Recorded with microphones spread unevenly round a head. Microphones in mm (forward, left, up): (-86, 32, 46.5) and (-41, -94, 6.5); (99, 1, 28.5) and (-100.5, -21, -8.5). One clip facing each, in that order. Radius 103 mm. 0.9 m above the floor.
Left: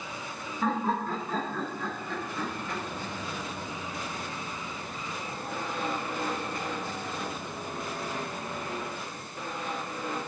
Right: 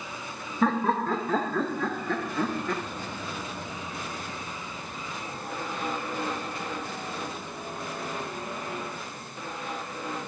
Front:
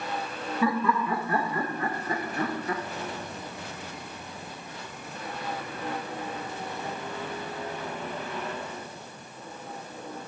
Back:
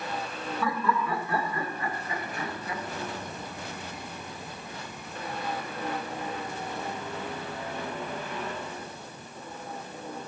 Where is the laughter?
70° right, 2.5 m; by 2.8 s 40° right, 1.6 m.